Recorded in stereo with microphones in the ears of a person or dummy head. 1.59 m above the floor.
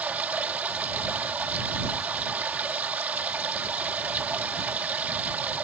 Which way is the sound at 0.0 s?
10° right (ahead or behind).